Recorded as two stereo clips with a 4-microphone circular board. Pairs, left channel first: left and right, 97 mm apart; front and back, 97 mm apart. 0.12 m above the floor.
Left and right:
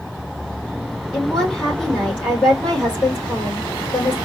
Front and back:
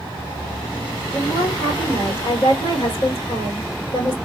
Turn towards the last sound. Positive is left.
turn(degrees=10)